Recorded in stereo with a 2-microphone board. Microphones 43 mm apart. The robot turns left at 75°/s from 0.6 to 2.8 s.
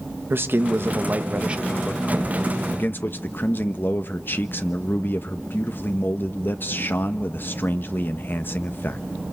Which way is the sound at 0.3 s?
80° right.